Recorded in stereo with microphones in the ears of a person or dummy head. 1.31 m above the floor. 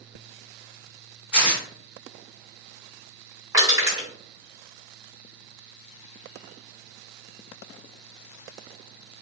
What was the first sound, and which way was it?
Tearing paper, 5° right (ahead or behind).